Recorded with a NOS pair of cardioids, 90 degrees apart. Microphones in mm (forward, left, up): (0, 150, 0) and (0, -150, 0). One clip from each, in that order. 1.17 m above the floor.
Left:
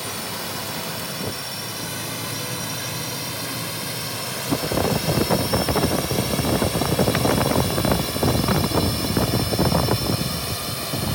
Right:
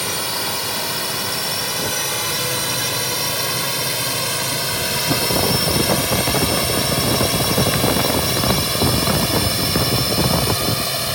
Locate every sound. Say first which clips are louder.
0.0 s a drone: right 7 dB; 60° right; by 11.2 s 50° right